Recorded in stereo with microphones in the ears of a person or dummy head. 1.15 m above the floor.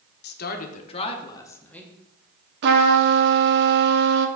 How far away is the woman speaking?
About 1.0 m.